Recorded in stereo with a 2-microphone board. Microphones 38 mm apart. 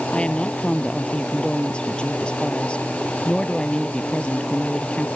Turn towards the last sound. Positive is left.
turn(degrees=25)  # may be behind; listen again after turning